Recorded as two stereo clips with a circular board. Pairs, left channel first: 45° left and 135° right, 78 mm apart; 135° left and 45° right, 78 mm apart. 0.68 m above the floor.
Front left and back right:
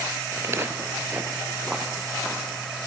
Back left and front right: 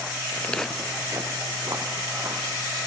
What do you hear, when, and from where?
0.3 s footsteps: straight behind, 0.9 m; by 2.7 s 50° right, 2 m